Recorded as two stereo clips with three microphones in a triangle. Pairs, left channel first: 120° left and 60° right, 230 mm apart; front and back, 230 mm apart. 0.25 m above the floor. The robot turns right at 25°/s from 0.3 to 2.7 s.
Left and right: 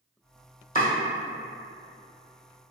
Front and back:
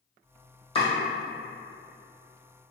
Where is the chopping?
65° left, 1.4 m; by 0.9 s 70° left, 1.4 m.